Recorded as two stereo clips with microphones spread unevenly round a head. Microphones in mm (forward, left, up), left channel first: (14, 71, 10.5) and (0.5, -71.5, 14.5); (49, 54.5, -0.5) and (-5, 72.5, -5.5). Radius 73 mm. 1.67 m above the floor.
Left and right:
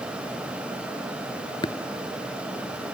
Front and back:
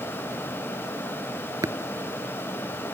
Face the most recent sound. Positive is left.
turn(degrees=145)